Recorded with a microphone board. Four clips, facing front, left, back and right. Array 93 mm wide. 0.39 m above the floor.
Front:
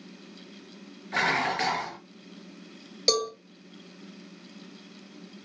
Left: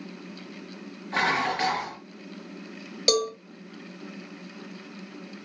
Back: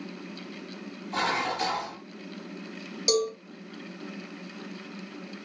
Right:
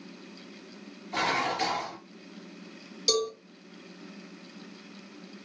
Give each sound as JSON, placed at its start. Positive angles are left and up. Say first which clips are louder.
{"t": 1.1, "sound": "dishes clattering", "louder": "left 3 dB, front 1 dB", "azimuth_deg": 40, "distance_m": 5.0}
{"t": 3.1, "sound": "a cowbell", "louder": "left 4 dB, back 2 dB", "azimuth_deg": 65, "distance_m": 2.5}